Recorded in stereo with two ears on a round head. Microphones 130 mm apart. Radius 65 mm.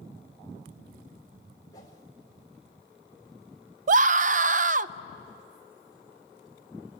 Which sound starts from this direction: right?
A scream, at 3.9 s.